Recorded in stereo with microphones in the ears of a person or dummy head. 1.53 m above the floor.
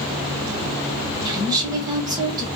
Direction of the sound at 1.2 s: 25° right (ahead or behind).